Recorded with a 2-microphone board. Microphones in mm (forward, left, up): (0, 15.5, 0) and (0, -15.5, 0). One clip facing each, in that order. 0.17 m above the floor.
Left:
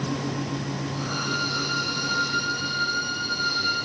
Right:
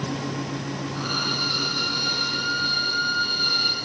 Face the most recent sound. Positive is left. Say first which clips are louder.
# right 3 dB
turn(degrees=-55)  # may be behind; listen again after turning